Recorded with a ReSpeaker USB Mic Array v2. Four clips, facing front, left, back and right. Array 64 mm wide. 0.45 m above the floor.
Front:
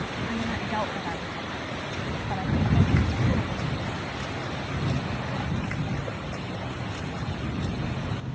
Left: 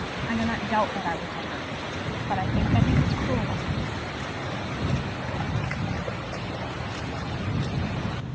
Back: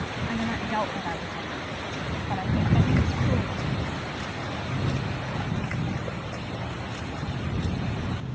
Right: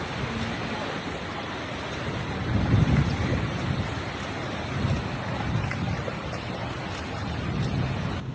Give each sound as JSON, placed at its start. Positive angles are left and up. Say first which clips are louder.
{"t": 0.3, "sound": "a woman speaking", "louder": "left 5 dB, back 2 dB", "azimuth_deg": 100}